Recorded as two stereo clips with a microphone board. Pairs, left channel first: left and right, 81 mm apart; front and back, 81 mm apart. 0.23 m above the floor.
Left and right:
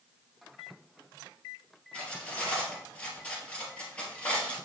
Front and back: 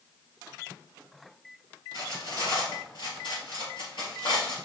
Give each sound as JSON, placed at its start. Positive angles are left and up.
{"t": 1.9, "sound": "cutlery clinking", "azimuth_deg": 15, "distance_m": 3.5}